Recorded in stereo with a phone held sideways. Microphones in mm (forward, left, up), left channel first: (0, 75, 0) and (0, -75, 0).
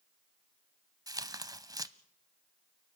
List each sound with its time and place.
1.1 s tearing paper: 25° right (ahead or behind), 0.7 m